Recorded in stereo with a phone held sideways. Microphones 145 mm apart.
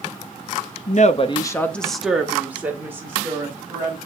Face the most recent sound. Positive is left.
turn(degrees=-20)  # may be behind; listen again after turning